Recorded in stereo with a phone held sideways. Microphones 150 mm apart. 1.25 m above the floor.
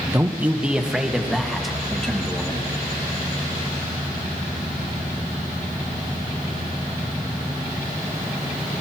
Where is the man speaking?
15° right (ahead or behind), 0.9 m; by 2.7 s 5° left (ahead or behind), 2.5 m.